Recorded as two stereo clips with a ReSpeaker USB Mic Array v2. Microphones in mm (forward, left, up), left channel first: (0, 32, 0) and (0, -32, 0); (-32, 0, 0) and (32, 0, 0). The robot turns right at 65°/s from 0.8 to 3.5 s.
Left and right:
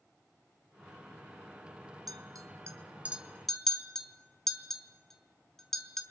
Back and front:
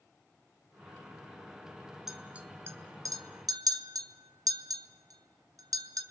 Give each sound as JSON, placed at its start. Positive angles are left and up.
{"t": 2.1, "sound": "a clink", "azimuth_deg": -85, "distance_m": 3.0}